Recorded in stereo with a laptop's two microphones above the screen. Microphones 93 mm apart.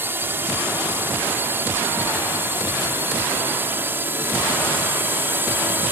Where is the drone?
20° right (ahead or behind).